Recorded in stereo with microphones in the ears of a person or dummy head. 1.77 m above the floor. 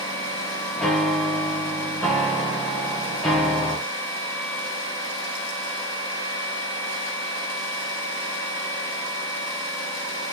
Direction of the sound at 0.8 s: 5° left (ahead or behind).